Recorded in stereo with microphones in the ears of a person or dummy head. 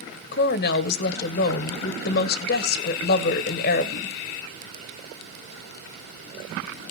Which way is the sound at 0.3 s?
55° left (ahead or behind).